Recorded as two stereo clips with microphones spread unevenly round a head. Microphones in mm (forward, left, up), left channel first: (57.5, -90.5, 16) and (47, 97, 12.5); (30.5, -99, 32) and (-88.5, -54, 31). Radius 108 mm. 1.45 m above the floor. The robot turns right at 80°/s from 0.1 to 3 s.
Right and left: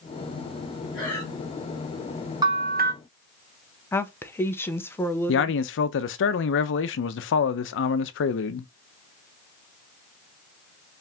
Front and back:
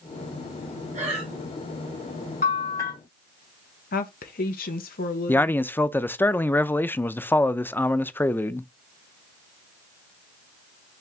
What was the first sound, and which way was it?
Breathing, 175° right.